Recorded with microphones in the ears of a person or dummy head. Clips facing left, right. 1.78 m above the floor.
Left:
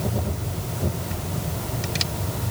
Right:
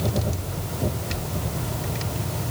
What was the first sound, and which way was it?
Only background noise.